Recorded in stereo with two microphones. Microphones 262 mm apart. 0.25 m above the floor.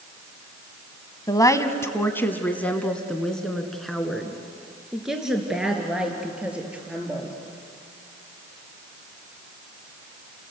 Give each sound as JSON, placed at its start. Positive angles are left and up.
{"t": 1.3, "sound": "a woman speaking", "side_deg": 15, "distance_m": 1.4}